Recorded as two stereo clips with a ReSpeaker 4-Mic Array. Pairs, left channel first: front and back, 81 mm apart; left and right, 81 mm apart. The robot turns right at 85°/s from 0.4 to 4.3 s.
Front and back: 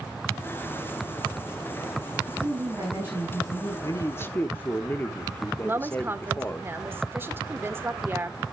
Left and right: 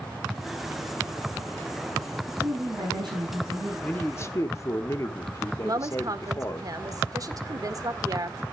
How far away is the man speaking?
About 1.1 m.